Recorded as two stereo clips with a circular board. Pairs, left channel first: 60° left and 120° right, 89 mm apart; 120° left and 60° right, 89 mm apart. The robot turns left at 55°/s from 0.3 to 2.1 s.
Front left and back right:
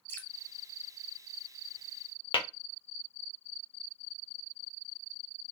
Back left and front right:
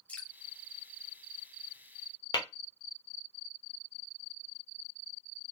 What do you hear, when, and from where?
0.1 s dripping: 65° left, 0.6 m
2.3 s tapping: 80° left, 0.7 m